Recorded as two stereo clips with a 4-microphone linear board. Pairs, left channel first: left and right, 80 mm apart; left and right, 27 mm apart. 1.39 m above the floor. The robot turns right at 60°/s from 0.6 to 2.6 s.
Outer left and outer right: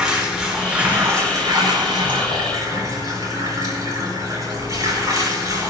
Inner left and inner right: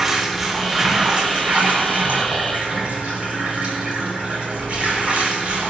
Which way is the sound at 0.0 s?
170° right.